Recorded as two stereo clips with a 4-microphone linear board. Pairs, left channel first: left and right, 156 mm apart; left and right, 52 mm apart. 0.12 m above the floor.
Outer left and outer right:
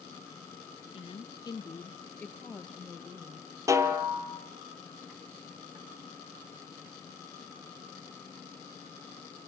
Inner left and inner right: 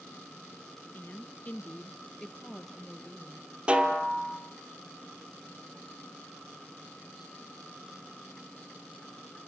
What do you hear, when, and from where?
0.9 s a woman speaking: 35° left (ahead or behind), 1.3 m; by 3.5 s 5° right (ahead or behind), 3 m
3.7 s a snare drum: 20° right (ahead or behind), 1.9 m